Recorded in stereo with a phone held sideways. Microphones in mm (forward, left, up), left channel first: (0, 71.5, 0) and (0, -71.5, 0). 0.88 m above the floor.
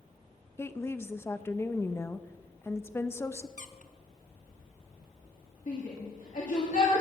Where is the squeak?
60° left (ahead or behind), 0.7 m.